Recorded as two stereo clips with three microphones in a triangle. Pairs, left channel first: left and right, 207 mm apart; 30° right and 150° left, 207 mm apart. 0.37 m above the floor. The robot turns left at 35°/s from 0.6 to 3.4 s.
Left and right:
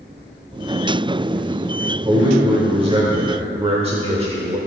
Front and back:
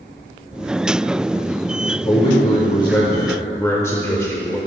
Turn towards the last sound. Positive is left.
turn(degrees=-95)